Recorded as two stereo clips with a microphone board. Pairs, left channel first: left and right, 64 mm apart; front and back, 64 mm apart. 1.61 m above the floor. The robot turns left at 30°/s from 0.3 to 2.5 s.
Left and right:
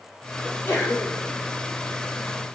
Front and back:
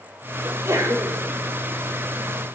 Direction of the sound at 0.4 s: 145° left.